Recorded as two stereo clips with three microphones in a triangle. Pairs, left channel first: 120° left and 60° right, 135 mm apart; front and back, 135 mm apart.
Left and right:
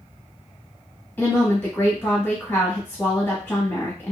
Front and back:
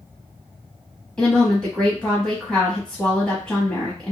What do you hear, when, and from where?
1.2 s a woman speaking: 70° left, 1.1 m